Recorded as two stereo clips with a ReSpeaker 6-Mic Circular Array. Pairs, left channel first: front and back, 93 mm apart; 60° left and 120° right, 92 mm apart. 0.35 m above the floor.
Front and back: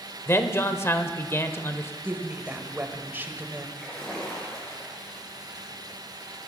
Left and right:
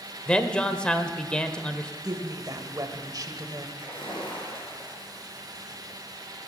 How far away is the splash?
About 5.5 m.